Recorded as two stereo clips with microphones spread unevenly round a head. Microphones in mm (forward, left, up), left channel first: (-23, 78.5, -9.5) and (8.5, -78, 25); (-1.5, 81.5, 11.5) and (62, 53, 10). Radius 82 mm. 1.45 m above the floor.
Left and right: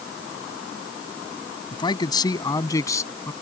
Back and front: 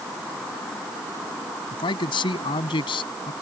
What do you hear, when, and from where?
1.7 s a man speaking: 165° left; by 3.3 s 175° left